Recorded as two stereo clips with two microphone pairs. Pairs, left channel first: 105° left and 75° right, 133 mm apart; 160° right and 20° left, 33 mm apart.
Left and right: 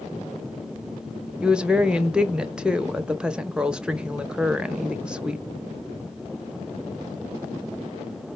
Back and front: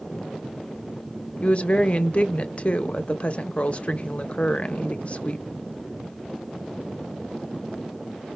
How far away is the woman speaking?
About 0.7 m.